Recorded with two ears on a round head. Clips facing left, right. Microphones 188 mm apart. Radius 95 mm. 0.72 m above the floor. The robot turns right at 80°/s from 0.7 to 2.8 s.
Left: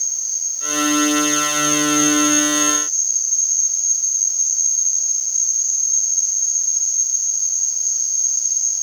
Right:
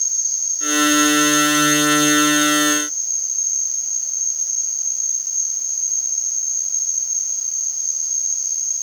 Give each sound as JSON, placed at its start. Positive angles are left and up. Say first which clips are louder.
{"t": 0.0, "sound": "an insect", "louder": "even", "azimuth_deg": -75, "distance_m": 4.5}